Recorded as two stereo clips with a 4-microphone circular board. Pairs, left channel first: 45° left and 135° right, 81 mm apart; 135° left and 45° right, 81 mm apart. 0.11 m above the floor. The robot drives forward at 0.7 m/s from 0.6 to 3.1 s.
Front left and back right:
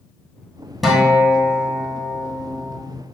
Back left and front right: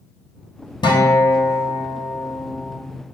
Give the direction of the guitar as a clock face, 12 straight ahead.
8 o'clock.